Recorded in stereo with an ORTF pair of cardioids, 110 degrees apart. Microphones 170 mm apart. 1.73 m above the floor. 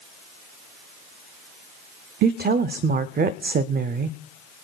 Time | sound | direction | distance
2.2 | a woman speaking | 70° right | 0.5 m